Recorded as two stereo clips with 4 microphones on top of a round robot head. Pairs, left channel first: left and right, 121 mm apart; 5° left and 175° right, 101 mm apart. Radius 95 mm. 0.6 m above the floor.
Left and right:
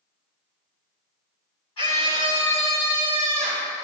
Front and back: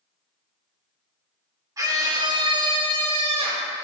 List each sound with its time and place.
1.8 s a scream: 135° left, 3 m; by 3.7 s 170° left, 4.5 m